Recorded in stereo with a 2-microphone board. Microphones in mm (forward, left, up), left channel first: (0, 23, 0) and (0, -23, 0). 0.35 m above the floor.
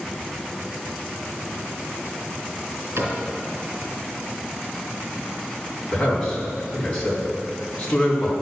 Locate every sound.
3.0 s a cupboard door: 60° right (ahead or behind), 3 m
5.9 s a man speaking: 20° left (ahead or behind), 3 m